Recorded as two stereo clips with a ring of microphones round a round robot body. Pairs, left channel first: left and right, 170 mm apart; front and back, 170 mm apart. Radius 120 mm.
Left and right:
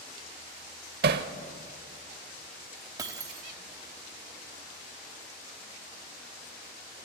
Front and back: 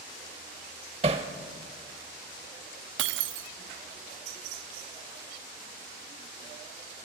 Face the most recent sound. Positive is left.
turn(degrees=-170)